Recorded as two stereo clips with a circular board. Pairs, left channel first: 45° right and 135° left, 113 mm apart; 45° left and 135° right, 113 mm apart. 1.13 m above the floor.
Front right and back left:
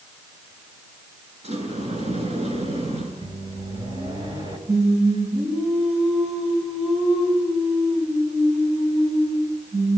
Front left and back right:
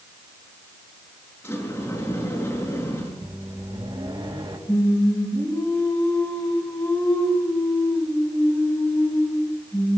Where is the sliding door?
115° left, 6.5 m.